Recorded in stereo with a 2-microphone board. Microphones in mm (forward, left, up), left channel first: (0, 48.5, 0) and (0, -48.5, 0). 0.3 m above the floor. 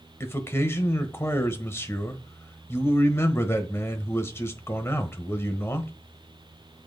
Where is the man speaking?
25° left (ahead or behind), 1.0 m.